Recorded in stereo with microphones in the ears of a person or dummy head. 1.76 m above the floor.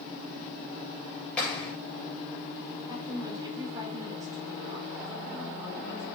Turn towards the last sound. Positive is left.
turn(degrees=-25)  # may be behind; listen again after turning